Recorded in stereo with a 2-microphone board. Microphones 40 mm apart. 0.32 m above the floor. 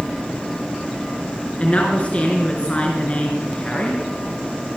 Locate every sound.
1.6 s a woman speaking: 35° left (ahead or behind), 4.5 m